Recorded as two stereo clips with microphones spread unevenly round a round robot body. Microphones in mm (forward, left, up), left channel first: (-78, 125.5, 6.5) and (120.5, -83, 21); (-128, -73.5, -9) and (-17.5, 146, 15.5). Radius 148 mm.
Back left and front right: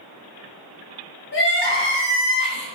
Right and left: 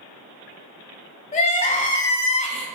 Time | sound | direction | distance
1.3 | crying | 175° right | 0.8 m